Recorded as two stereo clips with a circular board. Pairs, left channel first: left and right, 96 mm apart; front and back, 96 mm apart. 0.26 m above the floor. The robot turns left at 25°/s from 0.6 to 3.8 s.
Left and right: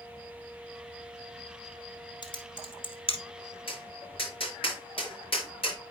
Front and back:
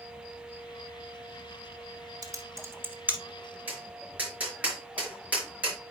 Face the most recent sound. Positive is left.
turn(degrees=105)